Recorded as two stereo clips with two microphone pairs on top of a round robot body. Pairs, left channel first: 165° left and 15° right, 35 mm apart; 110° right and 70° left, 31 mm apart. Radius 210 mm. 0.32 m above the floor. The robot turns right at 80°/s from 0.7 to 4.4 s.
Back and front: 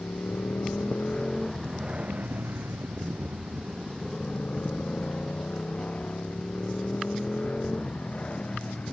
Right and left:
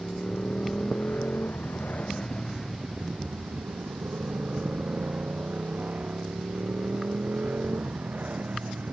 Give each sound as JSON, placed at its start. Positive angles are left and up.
{"t": 0.0, "sound": "a motorcycle", "azimuth_deg": -170}